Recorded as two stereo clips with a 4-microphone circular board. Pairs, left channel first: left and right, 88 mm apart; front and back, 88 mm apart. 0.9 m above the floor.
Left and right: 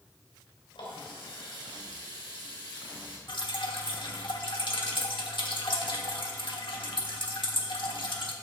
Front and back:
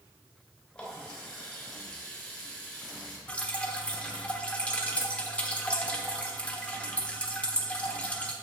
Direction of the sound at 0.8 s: 80° left.